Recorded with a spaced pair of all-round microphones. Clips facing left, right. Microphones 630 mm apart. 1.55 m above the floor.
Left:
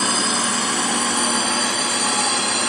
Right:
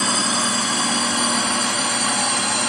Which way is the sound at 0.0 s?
10° right (ahead or behind).